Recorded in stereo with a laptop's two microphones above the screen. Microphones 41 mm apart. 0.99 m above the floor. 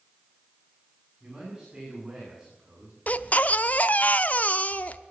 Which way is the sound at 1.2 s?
25° right (ahead or behind).